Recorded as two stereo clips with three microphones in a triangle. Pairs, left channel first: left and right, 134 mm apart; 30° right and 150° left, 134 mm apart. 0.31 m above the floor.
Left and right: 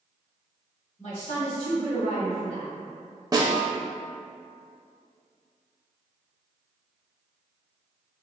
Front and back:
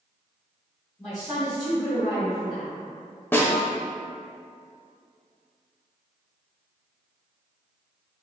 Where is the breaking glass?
I don't hear breaking glass.